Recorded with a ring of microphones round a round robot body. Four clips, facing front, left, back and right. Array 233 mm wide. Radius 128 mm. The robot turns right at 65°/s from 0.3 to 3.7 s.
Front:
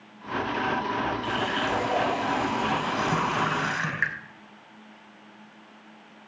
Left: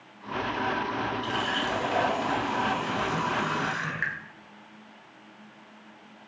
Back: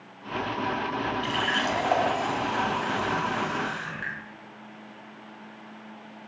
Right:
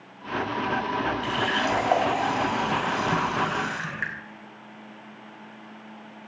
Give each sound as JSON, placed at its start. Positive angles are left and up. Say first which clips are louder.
{"t": 1.2, "sound": "a running tap", "louder": "right 4 dB, even", "azimuth_deg": -165, "distance_m": 4.0}